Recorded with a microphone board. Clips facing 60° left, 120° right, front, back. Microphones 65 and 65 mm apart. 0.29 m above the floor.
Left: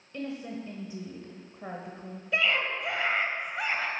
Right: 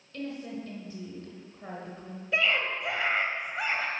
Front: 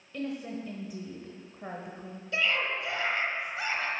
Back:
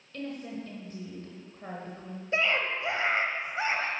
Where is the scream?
150° left, 1.1 m.